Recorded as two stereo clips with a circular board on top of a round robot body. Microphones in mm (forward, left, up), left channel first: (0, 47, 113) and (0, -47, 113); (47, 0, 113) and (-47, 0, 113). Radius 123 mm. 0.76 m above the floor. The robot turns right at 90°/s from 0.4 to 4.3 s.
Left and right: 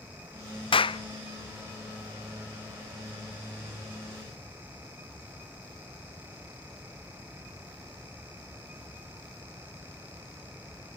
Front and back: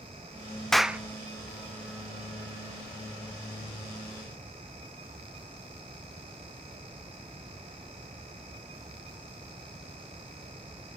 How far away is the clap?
About 1.0 m.